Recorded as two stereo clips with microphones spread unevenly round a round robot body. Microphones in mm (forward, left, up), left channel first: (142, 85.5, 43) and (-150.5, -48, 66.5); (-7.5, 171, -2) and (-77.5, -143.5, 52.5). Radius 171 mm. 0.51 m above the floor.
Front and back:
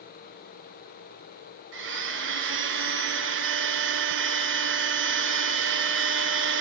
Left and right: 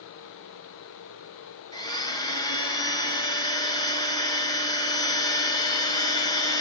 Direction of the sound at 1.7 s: 150° left.